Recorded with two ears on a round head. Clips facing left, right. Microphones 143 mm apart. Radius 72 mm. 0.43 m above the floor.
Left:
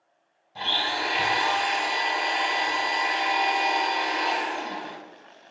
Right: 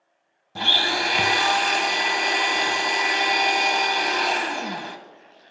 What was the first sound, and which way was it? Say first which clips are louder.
A blender: right 3 dB; 55° right (ahead or behind).